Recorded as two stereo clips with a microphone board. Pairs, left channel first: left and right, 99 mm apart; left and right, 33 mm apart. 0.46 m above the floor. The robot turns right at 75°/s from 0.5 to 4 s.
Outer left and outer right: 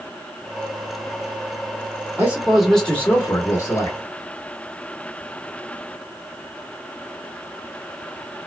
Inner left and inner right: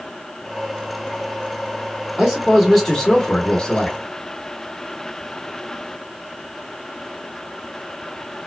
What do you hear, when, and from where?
2.2 s a man speaking: 35° right, 1.5 m; by 4.0 s 100° left, 1.5 m